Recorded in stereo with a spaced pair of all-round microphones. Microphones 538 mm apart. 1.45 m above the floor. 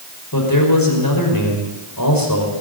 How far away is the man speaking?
About 5 m.